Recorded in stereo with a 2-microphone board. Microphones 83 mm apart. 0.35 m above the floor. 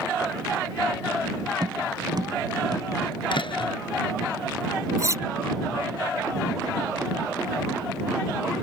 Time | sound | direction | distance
1.6 | tapping | 55° right (ahead or behind) | ?
3.3 | a door slam | 80° left | ?
5.0 | cutlery clinking | 40° right (ahead or behind) | ?